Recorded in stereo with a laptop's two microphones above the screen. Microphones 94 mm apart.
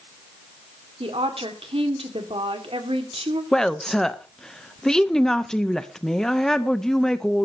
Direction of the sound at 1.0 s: 85° right.